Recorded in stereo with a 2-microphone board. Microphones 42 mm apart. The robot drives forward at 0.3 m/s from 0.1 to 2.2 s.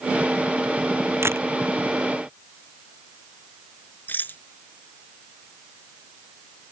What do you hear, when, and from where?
1.2 s a camera shutter: 90° right
4.1 s a rattle: 50° left (ahead or behind)